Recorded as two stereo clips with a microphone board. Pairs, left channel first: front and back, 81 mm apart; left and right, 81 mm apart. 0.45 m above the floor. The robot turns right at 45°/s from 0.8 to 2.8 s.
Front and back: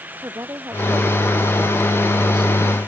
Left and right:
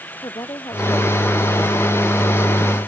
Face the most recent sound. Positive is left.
turn(degrees=-140)